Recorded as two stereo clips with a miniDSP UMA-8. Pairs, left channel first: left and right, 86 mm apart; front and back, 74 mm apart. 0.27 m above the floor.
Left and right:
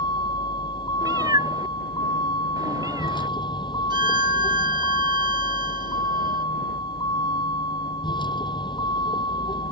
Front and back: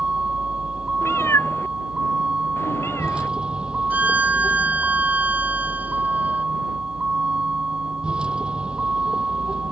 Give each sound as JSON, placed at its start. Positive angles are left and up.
{"t": 0.0, "sound": "a vehicle", "azimuth_deg": 105}
{"t": 1.0, "sound": "a cat meowing", "azimuth_deg": -50}
{"t": 3.9, "sound": "a violin", "azimuth_deg": -110}